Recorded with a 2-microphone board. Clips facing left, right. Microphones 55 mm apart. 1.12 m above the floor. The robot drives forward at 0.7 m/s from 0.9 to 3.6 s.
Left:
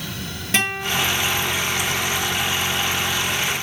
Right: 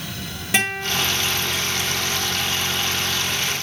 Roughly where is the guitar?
Centre.